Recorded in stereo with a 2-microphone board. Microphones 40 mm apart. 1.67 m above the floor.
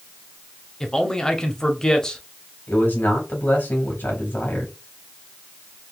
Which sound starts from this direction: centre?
A man speaking, at 0.8 s.